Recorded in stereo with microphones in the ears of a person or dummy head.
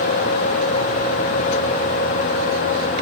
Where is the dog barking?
No dog barking in this recording.